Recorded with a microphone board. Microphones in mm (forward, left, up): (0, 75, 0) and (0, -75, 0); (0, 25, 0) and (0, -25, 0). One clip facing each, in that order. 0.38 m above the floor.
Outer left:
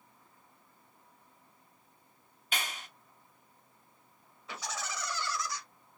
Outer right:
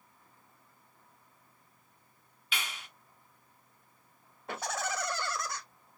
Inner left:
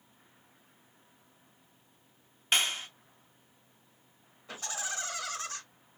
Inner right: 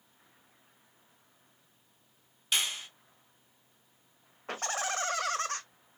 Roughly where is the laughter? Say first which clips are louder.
Outer right 5 dB, inner right 5 dB; right.